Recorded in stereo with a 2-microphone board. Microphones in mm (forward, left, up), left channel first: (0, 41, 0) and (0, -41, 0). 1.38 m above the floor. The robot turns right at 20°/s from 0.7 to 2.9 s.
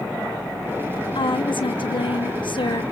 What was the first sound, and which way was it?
A woman speaking, 75° left.